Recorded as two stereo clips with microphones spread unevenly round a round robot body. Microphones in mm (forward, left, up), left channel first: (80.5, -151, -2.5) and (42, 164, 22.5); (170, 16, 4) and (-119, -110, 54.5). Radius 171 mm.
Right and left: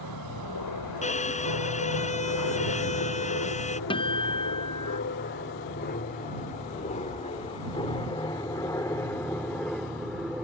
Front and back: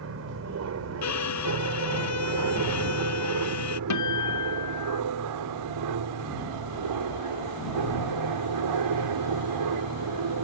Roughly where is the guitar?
Ahead.